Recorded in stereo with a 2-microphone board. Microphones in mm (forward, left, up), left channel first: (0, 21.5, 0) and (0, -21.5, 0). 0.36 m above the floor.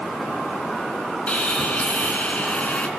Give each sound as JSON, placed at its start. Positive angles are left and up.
{"t": 1.3, "sound": "sawing", "side_deg": 35, "distance_m": 4.0}